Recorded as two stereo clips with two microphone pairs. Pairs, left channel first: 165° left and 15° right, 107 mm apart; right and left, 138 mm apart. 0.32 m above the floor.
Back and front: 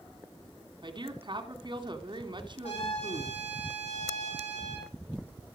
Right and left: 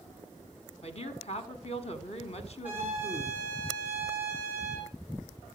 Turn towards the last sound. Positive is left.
turn(degrees=165)